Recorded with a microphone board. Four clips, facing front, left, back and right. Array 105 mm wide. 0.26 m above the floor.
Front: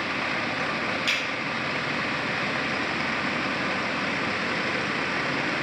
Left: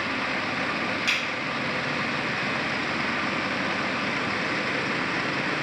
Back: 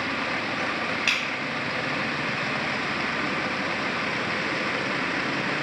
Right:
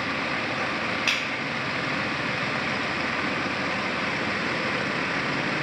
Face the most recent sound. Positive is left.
turn(degrees=-150)